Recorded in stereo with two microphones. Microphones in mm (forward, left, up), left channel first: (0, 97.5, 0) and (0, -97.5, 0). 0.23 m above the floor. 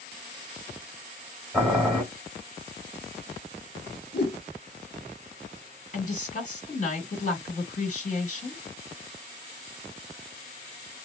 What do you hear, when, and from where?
1.5 s boiling: 5° left (ahead or behind), 1.7 m
4.1 s a whoosh: 55° left (ahead or behind), 0.8 m
5.9 s a woman speaking: 40° left (ahead or behind), 1.9 m